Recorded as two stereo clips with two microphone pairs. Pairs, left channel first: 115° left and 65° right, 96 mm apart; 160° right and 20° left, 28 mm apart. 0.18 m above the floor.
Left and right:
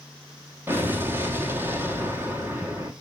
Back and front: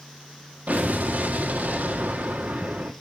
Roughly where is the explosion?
Ahead.